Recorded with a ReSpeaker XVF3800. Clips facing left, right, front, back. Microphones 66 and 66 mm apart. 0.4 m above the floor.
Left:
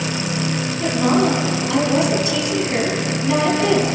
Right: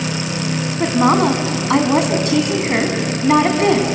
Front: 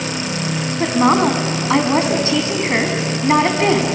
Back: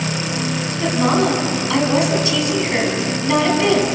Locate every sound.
0.8 s a woman speaking: 55° right, 3.5 m